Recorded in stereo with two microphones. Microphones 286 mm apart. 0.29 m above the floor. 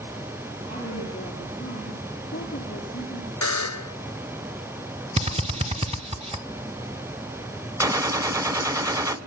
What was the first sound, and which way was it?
A woman speaking, 30° left (ahead or behind).